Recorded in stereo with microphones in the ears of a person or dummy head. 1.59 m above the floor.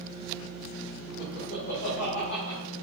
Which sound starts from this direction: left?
Laughter, at 1.2 s.